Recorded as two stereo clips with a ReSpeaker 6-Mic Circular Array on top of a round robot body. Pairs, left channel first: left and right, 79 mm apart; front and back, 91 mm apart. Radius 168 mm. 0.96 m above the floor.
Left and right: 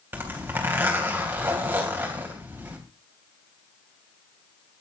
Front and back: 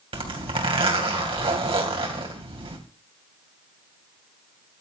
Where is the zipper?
155° right, 3 m.